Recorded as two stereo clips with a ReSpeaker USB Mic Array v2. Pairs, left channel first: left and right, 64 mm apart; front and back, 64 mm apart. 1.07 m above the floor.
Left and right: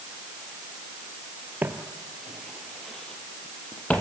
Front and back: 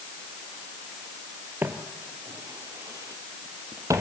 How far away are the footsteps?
About 1.4 m.